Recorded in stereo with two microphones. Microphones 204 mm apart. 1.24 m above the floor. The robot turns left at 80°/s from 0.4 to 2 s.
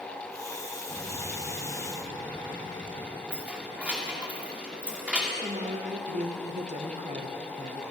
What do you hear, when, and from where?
0.9 s an explosion: 160° left, 2.5 m; by 3.2 s 70° left, 2.5 m
3.3 s keys jangling: 5° right (ahead or behind), 2 m
5.3 s a woman speaking: 35° right (ahead or behind), 1.3 m